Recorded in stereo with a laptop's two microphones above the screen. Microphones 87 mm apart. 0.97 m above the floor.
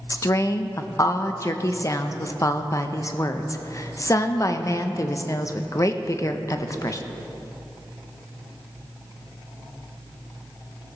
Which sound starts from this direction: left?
A woman speaking, at 0.1 s.